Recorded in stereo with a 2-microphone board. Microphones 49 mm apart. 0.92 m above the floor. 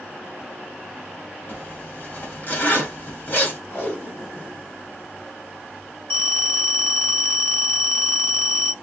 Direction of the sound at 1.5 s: 40° left (ahead or behind).